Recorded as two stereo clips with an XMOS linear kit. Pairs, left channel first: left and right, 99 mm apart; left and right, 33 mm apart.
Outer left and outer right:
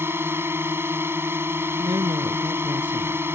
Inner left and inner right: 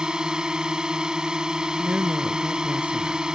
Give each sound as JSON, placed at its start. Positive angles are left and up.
{"t": 0.0, "sound": "a drone", "side_deg": -25}
{"t": 1.8, "sound": "a woman speaking", "side_deg": -55}